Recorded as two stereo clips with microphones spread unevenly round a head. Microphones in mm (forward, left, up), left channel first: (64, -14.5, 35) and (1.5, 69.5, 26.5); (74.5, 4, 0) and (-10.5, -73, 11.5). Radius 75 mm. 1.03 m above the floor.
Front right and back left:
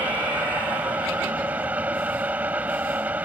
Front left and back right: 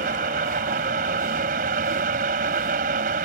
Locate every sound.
0.0 s a fan: 155° right